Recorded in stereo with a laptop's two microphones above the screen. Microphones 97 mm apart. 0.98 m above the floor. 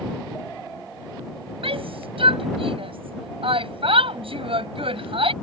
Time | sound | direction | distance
1.6 | a shout | 70° right (ahead or behind) | ?